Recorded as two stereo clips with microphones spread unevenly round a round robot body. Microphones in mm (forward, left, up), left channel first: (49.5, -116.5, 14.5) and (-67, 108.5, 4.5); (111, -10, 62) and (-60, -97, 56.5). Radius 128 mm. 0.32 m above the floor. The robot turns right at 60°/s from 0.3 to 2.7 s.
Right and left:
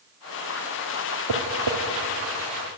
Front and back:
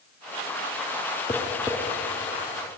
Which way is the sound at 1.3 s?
105° left.